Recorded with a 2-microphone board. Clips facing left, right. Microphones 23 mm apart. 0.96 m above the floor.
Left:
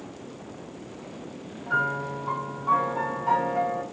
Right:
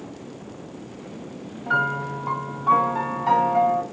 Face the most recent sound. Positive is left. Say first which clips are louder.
# right 3 dB
turn(degrees=-45)  # may be behind; listen again after turning